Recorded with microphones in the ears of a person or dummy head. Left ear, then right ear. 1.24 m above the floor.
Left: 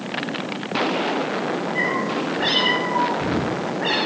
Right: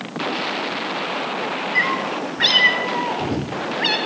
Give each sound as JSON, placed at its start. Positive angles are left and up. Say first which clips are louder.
{"t": 1.8, "sound": "a cat meowing", "louder": "right 4 dB", "side_deg": -65, "distance_m": 2.5}